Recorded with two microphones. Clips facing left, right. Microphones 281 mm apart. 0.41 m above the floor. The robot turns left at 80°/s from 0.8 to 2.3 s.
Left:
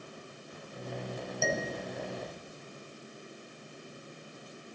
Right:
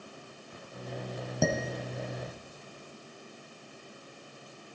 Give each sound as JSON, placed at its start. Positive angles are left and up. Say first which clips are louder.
{"t": 1.4, "sound": "dishes clattering", "louder": "right 4 dB", "side_deg": -70, "distance_m": 1.6}